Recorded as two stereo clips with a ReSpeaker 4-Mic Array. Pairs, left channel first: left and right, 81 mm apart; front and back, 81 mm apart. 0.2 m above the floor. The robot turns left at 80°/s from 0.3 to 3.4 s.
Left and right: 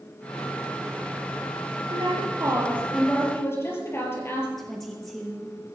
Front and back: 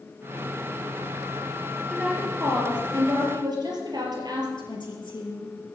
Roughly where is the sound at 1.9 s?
Right.